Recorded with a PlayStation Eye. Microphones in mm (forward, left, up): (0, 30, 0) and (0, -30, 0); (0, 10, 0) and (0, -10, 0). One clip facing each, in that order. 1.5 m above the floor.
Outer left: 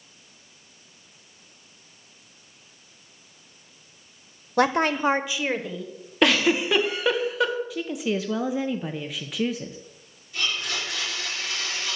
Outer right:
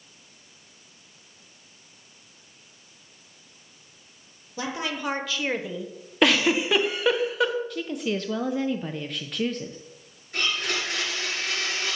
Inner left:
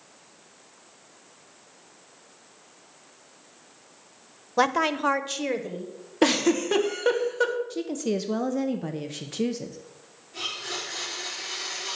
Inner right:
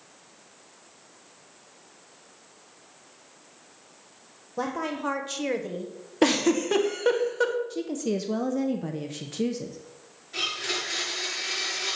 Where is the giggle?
Centre (ahead or behind), 0.9 m.